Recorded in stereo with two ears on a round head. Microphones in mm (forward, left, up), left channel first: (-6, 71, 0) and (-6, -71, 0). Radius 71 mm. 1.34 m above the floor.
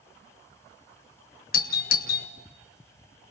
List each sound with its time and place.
1.5 s a doorbell: 60° left (ahead or behind), 1.5 m